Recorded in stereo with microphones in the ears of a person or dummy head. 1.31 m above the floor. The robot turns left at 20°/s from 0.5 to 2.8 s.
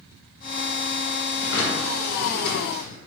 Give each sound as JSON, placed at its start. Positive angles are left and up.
{"t": 1.4, "sound": "a drawer", "side_deg": 75, "distance_m": 1.5}